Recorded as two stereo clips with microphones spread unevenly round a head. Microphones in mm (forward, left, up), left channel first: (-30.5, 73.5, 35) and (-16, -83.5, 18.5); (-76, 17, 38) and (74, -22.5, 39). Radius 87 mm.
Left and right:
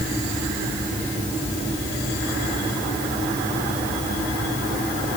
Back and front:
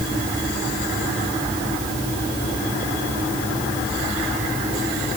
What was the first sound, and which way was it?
Only background noise.